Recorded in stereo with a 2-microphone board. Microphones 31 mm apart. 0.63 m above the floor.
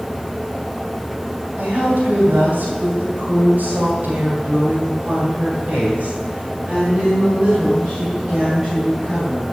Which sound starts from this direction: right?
A woman speaking, at 1.6 s.